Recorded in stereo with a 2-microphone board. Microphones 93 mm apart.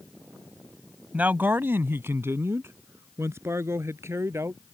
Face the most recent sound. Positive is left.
turn(degrees=-30)  # may be behind; listen again after turning